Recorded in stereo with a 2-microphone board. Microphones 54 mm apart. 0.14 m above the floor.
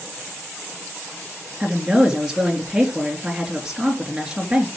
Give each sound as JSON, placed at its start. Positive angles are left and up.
{"t": 1.6, "sound": "a woman speaking", "side_deg": -15, "distance_m": 2.5}